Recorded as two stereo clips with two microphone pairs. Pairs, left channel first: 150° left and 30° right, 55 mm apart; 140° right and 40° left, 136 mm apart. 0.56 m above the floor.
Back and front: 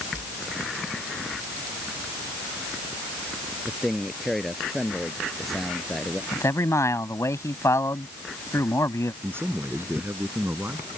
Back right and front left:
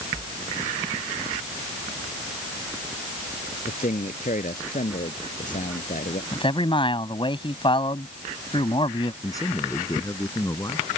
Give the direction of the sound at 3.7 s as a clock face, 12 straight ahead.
4 o'clock.